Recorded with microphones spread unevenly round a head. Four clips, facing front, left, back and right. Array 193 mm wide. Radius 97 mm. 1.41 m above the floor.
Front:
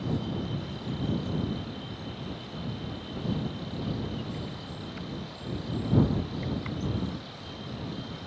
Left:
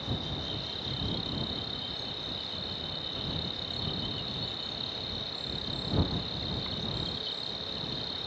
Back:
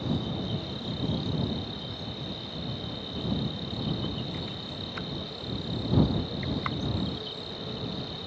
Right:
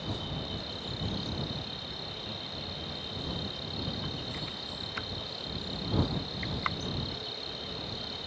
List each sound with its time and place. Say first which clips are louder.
0.0 s an insect: even, even; 175° right